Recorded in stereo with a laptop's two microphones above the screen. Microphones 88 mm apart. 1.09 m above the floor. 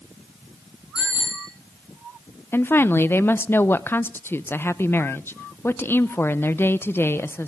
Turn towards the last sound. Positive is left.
turn(degrees=25)  # may be behind; listen again after turning